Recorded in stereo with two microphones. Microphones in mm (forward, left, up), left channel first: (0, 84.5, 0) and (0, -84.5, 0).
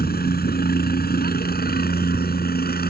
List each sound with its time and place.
0.0 s a helicopter: 65° left (ahead or behind)